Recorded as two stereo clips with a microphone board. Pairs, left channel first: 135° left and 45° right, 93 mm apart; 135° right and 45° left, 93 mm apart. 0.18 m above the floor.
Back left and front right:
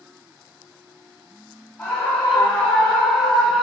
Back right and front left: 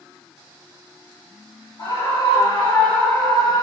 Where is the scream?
150° right, 2.5 m; by 3.6 s 130° right, 1.4 m.